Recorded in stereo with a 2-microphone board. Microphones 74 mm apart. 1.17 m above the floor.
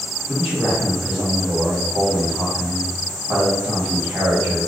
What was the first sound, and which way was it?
A man speaking, 15° right (ahead or behind).